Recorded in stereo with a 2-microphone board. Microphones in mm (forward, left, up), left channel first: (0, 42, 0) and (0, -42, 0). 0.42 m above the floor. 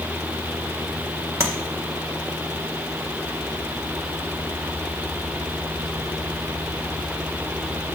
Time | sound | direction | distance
1.4 | tapping | 35° right (ahead or behind) | 1.6 m